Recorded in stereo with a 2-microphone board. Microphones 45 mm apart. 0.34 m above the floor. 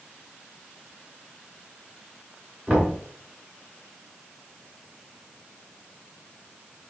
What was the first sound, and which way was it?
Knocking, 30° right (ahead or behind).